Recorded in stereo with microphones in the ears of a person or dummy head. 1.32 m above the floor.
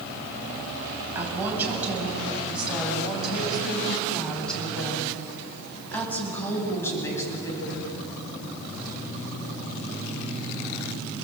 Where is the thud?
No thud in this recording.